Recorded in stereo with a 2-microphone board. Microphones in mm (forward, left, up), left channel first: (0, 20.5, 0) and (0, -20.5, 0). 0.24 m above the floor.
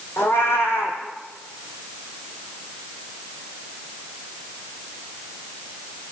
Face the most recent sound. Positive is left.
turn(degrees=75)  # may be behind; listen again after turning